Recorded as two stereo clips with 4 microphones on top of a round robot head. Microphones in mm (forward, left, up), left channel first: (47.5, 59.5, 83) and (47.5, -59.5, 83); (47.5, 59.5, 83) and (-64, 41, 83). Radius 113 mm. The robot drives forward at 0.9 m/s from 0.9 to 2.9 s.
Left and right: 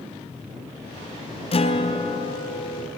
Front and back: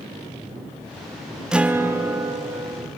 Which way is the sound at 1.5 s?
105° left.